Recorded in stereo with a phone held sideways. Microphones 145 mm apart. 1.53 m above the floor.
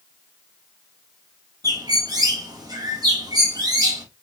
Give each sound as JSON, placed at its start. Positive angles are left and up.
{"t": 1.6, "sound": "a bird", "side_deg": -25, "distance_m": 1.2}